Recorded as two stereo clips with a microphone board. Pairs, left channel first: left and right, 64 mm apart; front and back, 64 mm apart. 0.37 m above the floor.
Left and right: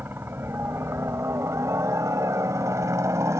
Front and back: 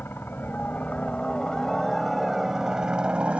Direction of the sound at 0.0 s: 45° right.